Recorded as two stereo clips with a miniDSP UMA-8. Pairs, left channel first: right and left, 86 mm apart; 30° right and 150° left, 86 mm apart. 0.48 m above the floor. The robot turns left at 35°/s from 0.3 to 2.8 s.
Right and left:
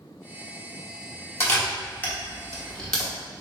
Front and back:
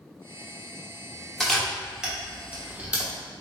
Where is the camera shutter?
115° right, 1.0 m; by 3.1 s 165° right, 1.0 m.